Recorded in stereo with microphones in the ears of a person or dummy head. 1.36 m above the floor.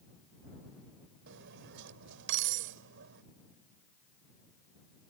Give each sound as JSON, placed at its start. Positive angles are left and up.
{"t": 1.3, "sound": "cutlery clinking", "side_deg": -65}